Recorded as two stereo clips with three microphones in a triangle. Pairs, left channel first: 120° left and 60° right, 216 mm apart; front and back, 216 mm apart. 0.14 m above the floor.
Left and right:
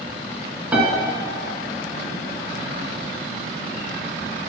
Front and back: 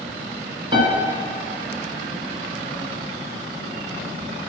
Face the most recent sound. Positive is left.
turn(degrees=-140)